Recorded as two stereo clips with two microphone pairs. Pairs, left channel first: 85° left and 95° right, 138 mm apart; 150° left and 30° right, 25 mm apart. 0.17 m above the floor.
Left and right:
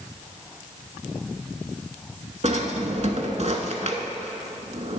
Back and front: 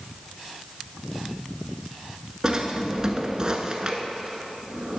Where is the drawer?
85° right, 0.7 m.